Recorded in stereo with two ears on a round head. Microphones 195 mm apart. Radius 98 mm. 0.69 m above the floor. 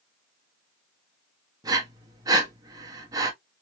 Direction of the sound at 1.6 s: 15° right (ahead or behind).